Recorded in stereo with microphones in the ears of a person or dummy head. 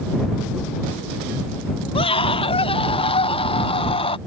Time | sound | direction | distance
1.9 | a scream | 25° left (ahead or behind) | ?